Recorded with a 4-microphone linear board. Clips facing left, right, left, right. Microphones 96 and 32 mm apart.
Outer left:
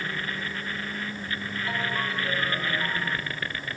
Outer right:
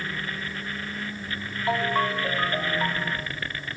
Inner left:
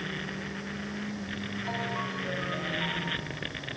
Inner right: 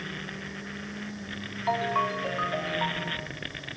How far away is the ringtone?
About 1.9 m.